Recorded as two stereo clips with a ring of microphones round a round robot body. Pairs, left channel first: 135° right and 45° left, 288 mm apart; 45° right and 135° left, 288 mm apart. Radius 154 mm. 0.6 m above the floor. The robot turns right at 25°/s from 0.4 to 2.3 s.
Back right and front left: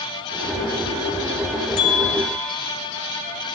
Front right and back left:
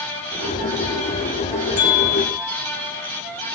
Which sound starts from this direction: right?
A bell, at 1.8 s.